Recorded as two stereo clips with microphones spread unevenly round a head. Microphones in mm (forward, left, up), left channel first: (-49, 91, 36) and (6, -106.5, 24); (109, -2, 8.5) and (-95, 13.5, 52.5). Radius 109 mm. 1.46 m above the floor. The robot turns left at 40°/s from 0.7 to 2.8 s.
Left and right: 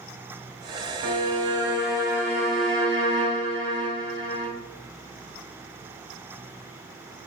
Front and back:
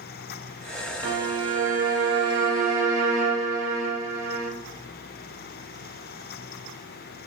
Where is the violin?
135° right, 1.1 m; by 4.5 s 155° left, 1.1 m.